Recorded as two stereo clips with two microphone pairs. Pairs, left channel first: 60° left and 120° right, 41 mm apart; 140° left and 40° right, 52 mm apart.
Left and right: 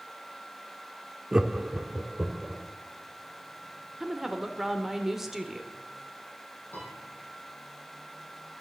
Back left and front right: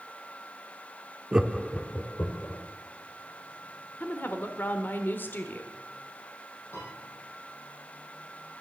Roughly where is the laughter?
Ahead right.